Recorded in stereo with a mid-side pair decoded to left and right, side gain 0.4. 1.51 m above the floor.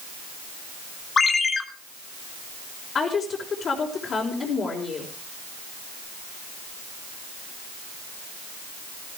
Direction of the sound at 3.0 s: 55° left.